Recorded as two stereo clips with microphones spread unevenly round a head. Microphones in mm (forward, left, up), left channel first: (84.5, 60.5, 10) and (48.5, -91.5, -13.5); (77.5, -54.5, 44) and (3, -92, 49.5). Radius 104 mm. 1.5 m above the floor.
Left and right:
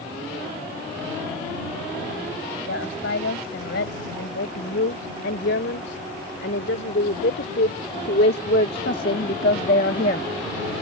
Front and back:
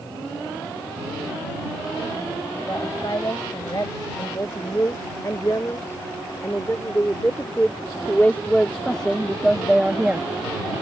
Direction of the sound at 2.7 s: 100° left.